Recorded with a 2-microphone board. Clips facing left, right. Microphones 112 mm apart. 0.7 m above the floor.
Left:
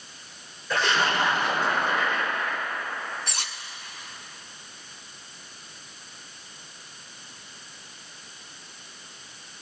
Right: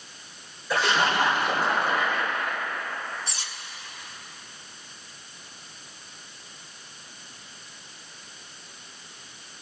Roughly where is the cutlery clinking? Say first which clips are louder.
Left 2 dB; left.